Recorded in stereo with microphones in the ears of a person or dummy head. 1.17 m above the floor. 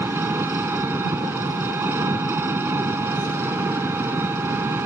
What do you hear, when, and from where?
0.0 s an engine running: 15° right (ahead or behind)